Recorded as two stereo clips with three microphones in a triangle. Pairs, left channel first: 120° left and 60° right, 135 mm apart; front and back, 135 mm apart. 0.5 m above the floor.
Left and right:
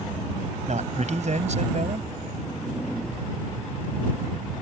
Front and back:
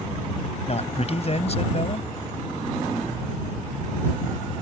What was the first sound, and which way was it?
A man speaking, 35° right.